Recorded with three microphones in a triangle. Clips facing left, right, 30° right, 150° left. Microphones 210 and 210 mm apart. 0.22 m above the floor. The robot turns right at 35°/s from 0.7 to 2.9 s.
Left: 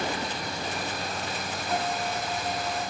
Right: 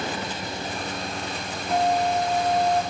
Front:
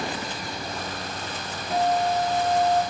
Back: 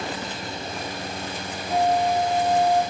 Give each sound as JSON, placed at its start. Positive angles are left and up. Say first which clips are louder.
{"t": 1.7, "sound": "a guitar", "louder": "right 9 dB, back 2 dB", "azimuth_deg": -165, "distance_m": 7.5}